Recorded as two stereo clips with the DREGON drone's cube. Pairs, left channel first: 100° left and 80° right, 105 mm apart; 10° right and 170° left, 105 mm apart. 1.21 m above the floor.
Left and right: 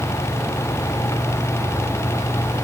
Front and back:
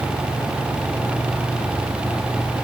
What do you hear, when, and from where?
Only background noise.